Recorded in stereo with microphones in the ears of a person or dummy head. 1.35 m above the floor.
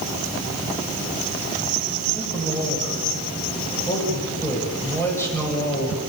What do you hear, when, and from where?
2.1 s a man speaking: 15° left (ahead or behind), 7.5 m